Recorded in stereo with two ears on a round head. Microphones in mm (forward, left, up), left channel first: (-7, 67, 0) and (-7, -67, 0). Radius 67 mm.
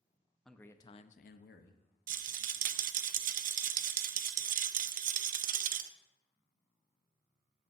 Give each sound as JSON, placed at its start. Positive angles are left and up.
{"t": 0.5, "sound": "a man speaking", "side_deg": 5, "distance_m": 0.8}
{"t": 2.1, "sound": "a rattle", "side_deg": -55, "distance_m": 0.5}